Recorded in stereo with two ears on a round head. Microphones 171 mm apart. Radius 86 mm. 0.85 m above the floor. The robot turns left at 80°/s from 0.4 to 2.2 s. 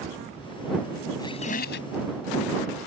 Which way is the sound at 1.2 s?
160° left.